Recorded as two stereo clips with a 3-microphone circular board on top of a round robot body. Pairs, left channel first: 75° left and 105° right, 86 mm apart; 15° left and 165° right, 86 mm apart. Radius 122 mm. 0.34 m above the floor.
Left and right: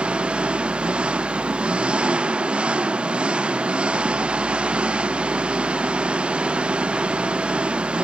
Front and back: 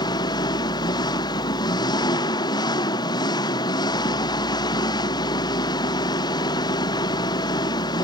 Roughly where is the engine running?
Ahead right.